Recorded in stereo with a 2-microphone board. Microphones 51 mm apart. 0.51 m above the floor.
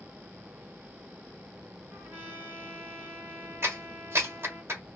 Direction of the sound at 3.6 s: 50° right (ahead or behind).